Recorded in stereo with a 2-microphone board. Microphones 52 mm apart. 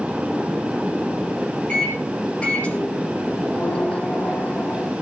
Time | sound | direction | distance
1.7 | a microwave | 20° left (ahead or behind) | 5 m